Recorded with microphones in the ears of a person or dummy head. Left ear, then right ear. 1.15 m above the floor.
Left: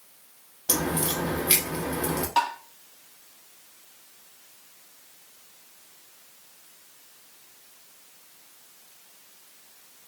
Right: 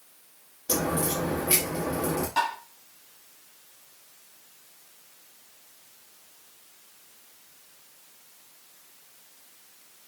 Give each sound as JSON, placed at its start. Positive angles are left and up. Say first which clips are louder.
{"t": 0.7, "sound": "a crack", "louder": "even", "side_deg": 35, "distance_m": 0.9}
{"t": 2.4, "sound": "tapping", "louder": "left 3 dB", "side_deg": 35, "distance_m": 1.5}